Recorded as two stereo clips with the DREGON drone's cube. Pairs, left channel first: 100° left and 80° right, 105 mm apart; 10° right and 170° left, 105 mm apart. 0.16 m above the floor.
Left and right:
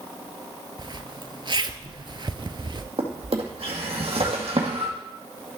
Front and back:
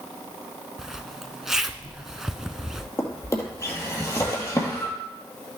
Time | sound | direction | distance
0.8 | a zipper | 105° right | 0.6 m
3.0 | a drawer | 70° right | 2 m